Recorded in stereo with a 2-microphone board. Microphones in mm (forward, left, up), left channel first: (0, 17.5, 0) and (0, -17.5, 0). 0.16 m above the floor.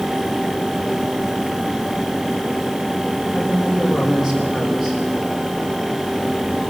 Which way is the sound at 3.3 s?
10° right (ahead or behind).